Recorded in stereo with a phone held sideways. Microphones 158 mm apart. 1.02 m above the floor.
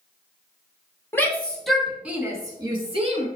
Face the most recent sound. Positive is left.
turn(degrees=-45)  # may be behind; listen again after turning